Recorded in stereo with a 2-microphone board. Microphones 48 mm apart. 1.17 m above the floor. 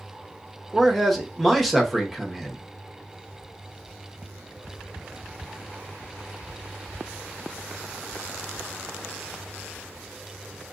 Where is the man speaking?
Centre (ahead or behind), 0.8 m.